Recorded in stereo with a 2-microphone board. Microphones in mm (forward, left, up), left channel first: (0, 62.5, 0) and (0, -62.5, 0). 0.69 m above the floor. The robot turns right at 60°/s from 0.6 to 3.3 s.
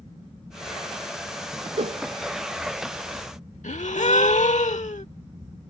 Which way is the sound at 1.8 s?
65° right (ahead or behind).